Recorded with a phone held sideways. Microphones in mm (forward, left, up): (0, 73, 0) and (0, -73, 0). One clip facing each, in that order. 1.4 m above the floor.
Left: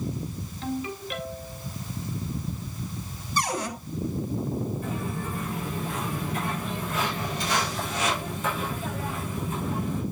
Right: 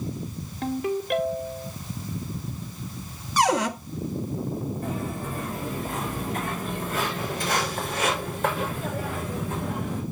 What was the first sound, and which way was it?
A ringtone, 50° right (ahead or behind).